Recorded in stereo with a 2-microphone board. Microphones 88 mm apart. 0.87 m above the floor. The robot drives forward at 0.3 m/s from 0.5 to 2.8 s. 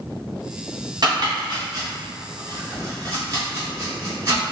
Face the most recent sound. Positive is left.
turn(degrees=-35)  # may be behind; listen again after turning